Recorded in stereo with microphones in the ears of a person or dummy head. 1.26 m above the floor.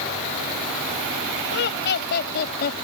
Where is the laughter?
65° left (ahead or behind); by 2.8 s 60° left (ahead or behind).